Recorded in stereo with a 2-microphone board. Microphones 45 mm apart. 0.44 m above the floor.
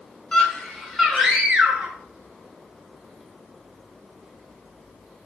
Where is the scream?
15° left (ahead or behind), 1.5 m; by 1.9 s 20° right (ahead or behind), 1.8 m.